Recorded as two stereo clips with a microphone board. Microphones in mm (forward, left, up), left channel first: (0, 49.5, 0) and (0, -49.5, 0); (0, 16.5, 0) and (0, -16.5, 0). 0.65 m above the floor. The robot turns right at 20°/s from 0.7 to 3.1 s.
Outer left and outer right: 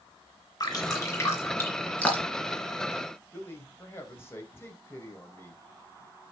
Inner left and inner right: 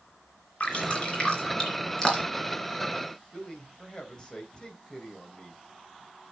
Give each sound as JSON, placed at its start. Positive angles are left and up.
{"t": 0.6, "sound": "dripping", "side_deg": 40, "distance_m": 3.5}
{"t": 3.3, "sound": "a man speaking", "side_deg": 25, "distance_m": 3.0}